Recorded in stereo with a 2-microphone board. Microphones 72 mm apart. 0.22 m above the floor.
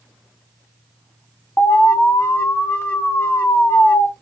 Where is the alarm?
30° left (ahead or behind), 1.2 m.